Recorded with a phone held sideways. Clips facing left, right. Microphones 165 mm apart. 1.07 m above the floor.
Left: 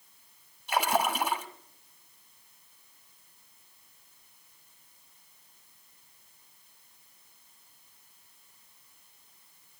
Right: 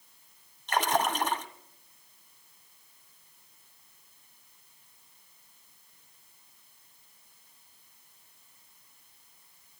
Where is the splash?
10° left (ahead or behind), 1.4 m.